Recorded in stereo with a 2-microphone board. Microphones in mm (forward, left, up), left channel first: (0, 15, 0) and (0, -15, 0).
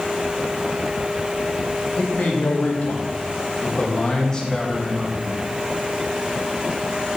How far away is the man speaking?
About 3 m.